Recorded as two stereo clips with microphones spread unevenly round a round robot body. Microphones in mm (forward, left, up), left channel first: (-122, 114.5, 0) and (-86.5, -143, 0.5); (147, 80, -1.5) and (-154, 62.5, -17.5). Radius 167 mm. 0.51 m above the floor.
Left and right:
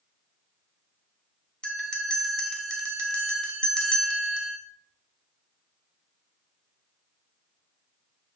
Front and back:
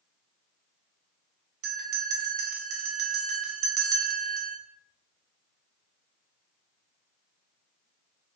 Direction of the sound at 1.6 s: 175° right.